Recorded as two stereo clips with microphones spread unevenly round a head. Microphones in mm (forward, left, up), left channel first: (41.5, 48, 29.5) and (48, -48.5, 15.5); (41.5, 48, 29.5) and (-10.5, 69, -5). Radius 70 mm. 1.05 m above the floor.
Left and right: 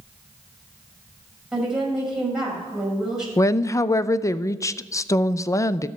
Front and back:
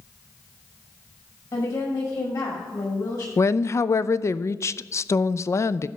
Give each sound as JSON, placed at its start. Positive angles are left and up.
{"t": 1.5, "sound": "a woman speaking", "azimuth_deg": 0, "distance_m": 6.0}
{"t": 3.4, "sound": "a woman speaking", "azimuth_deg": 30, "distance_m": 0.5}